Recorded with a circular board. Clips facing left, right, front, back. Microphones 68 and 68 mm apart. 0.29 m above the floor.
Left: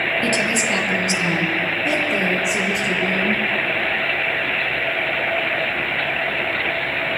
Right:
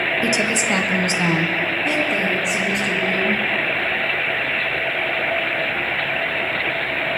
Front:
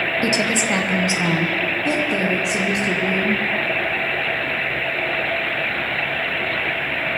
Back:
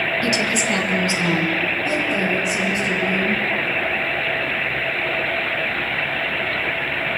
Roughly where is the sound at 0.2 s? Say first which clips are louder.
Even, front 1 dB; ahead.